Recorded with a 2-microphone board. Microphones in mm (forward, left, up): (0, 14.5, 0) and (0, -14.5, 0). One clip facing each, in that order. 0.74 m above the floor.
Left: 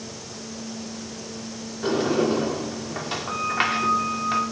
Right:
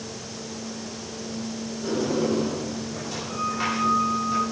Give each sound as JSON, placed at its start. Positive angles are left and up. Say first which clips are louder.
{"t": 1.8, "sound": "a sliding door", "louder": "left 3 dB", "side_deg": 55, "distance_m": 1.9}